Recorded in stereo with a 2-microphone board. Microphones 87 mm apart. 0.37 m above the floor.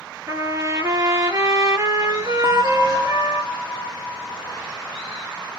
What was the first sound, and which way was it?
A trumpet, 35° right (ahead or behind).